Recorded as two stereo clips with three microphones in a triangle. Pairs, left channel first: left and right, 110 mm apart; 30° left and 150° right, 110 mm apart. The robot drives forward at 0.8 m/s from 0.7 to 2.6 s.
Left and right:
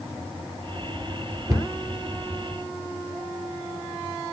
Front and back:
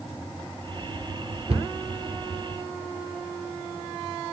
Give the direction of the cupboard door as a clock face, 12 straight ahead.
5 o'clock.